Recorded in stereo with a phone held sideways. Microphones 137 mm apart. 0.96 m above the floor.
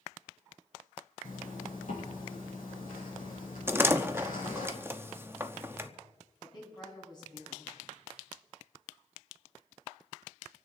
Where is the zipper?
65° left (ahead or behind), 8.5 m.